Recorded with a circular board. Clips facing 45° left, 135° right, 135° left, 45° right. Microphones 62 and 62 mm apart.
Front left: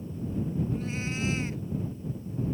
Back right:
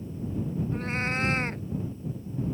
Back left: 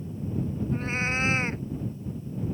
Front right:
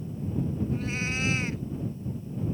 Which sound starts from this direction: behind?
A cat meowing, at 0.7 s.